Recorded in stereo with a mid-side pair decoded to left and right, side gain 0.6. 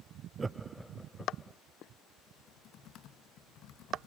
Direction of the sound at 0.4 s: 25° right.